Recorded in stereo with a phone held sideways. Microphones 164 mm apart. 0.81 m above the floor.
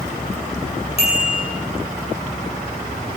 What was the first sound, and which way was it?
A bicycle bell, 35° left (ahead or behind).